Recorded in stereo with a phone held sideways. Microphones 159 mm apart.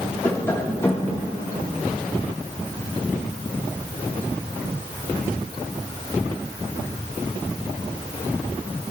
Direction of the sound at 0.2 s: 15° left (ahead or behind).